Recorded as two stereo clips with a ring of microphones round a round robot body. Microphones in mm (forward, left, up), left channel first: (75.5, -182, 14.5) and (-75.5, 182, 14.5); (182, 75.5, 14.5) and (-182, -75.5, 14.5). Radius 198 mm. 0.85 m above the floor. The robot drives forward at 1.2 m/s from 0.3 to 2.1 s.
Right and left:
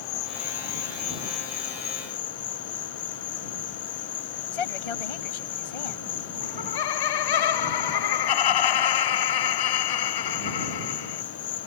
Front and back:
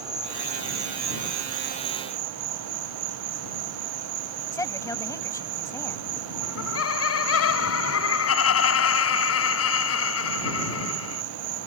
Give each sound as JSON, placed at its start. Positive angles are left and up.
{"t": 0.0, "sound": "an insect", "azimuth_deg": -75}
{"t": 4.5, "sound": "a woman speaking", "azimuth_deg": -60}
{"t": 6.4, "sound": "laughter", "azimuth_deg": -35}